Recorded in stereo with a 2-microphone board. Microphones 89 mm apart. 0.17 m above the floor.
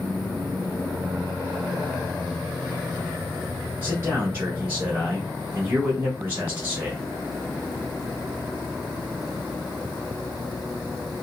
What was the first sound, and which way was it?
A man speaking, 25° right (ahead or behind).